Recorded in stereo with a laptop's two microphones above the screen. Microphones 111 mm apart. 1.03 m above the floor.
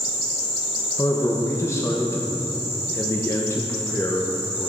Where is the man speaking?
25° left (ahead or behind), 0.9 m.